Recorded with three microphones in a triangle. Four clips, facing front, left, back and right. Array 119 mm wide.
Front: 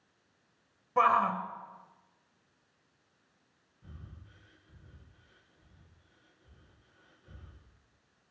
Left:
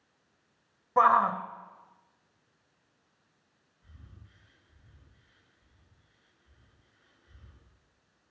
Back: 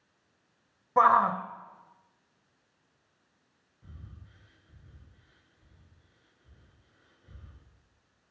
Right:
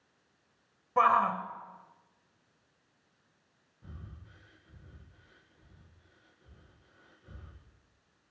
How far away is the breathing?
About 7.5 m.